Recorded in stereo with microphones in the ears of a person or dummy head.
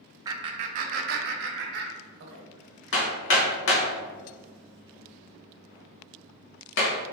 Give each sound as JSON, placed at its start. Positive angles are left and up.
{"t": 0.2, "sound": "laughter", "side_deg": -25, "distance_m": 0.6}
{"t": 2.9, "sound": "hammering", "side_deg": 55, "distance_m": 1.3}